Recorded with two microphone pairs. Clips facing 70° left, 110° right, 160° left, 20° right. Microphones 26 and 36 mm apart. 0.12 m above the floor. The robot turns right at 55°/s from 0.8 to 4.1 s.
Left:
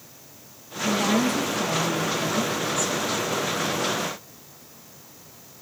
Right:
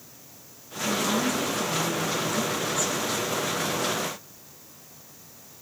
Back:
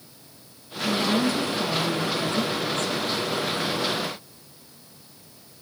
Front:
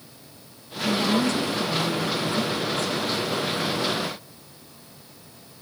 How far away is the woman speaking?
About 2 m.